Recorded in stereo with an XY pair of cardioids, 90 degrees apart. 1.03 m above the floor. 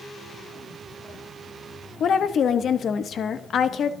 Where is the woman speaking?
60° left, 0.7 m.